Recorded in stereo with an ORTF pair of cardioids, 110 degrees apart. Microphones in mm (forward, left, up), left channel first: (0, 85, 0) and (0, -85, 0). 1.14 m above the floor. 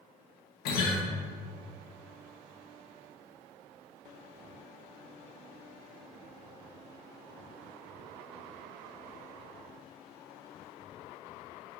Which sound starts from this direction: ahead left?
A guitar, at 0.7 s.